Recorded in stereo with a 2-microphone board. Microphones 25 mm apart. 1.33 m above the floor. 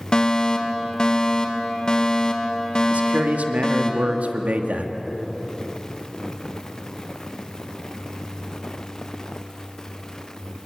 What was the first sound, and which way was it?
A fire alarm, 35° left (ahead or behind).